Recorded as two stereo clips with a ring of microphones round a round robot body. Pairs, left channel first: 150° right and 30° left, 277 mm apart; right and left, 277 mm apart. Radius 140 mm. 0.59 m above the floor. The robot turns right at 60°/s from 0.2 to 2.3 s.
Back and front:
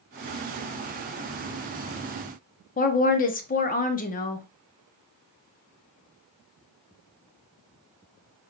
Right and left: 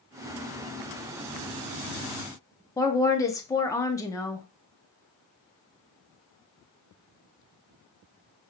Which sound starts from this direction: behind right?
A woman speaking, at 2.8 s.